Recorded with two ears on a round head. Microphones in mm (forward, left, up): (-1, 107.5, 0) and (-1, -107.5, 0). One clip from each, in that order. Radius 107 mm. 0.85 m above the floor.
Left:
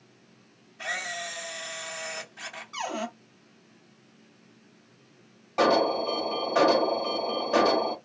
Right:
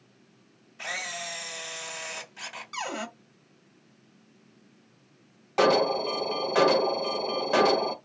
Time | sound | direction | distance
0.8 | a camera shutter | 75° right (ahead or behind) | 1.5 m
2.7 | a cupboard door | 80° right | 1.5 m
5.6 | an alarm | 25° right (ahead or behind) | 0.7 m